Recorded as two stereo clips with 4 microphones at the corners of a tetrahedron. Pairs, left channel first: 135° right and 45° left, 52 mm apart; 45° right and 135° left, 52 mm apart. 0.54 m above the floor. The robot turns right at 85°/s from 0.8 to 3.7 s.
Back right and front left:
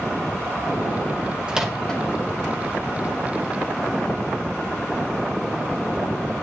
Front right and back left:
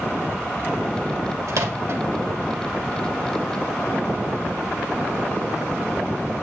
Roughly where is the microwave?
Behind left.